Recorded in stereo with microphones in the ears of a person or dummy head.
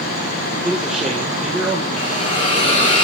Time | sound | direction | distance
0.6 | a man speaking | 5° right (ahead or behind) | 2 m
2.0 | a hiss | 35° left (ahead or behind) | 2.5 m